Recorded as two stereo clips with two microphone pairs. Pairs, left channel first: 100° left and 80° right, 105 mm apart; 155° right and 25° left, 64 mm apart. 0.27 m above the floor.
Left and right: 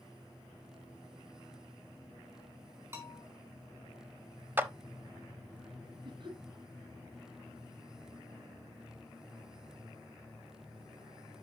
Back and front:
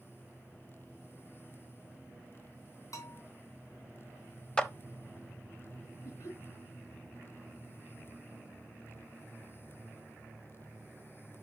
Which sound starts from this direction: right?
A clap, at 4.6 s.